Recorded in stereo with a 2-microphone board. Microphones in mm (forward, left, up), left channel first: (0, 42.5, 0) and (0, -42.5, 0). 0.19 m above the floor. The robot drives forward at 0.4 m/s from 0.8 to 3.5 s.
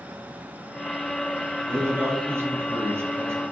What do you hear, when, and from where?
1.7 s a man speaking: 25° right (ahead or behind), 1.8 m; by 3.4 s 30° right (ahead or behind), 1.7 m